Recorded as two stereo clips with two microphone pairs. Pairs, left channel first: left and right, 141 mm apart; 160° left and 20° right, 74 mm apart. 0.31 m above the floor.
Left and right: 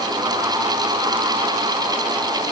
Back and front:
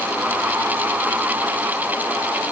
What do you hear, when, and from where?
Only background noise.